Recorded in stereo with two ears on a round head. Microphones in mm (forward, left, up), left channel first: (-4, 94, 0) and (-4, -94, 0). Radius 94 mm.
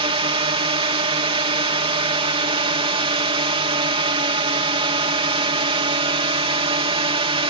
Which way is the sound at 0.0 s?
25° right (ahead or behind).